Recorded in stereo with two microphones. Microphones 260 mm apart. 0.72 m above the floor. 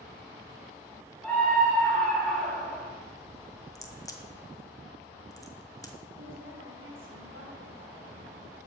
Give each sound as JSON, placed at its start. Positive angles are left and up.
{"t": 1.2, "sound": "a scream", "side_deg": 5, "distance_m": 1.9}
{"t": 3.8, "sound": "a crack", "side_deg": 15, "distance_m": 1.8}
{"t": 6.2, "sound": "a woman speaking", "side_deg": -55, "distance_m": 5.0}